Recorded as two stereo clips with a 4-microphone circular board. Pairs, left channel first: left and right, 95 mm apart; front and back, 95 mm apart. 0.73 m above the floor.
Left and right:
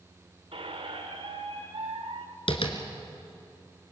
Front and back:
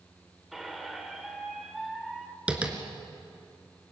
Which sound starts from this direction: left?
Tapping, at 2.5 s.